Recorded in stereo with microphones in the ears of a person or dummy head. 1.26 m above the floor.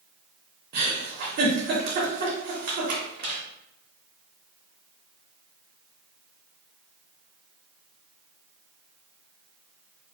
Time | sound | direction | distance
0.7 | a giggle | 40° right (ahead or behind) | 0.7 m